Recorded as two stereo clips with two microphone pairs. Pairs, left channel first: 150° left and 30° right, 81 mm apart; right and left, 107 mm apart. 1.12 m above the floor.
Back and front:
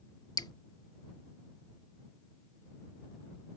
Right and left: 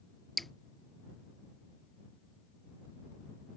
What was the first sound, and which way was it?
Dripping, straight behind.